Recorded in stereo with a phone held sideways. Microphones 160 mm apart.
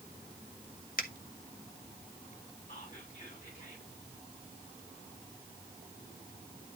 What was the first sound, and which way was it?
A finger snap, 65° left (ahead or behind).